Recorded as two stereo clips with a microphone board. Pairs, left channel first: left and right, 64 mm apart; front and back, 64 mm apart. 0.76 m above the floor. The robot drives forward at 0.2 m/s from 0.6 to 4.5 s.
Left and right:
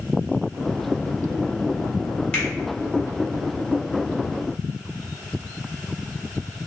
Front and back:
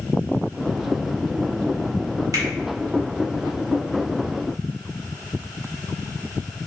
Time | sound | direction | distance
2.3 | a finger snap | 160° left | 2.0 m